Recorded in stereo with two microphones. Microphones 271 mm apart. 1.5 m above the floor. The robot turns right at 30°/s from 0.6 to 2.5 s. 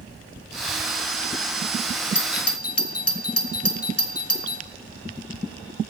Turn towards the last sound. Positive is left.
turn(degrees=60)  # may be behind; listen again after turning